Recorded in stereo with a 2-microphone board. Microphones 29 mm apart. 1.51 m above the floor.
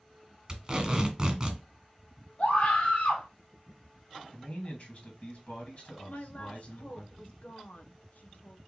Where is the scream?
45° left (ahead or behind), 2 m.